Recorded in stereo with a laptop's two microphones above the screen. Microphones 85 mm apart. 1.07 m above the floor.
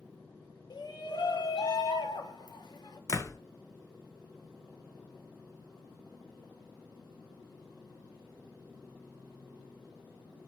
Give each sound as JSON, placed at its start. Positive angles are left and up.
{"t": 0.7, "sound": "a shout", "side_deg": 55, "distance_m": 0.8}
{"t": 3.1, "sound": "a door slam", "side_deg": 40, "distance_m": 0.5}